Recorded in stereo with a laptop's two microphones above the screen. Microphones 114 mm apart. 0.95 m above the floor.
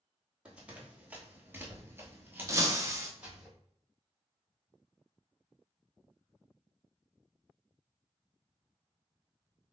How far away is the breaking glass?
About 0.6 m.